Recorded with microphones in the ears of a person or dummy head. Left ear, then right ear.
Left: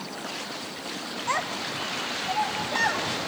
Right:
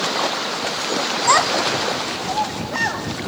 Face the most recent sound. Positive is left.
turn(degrees=0)  # may be behind; listen again after turning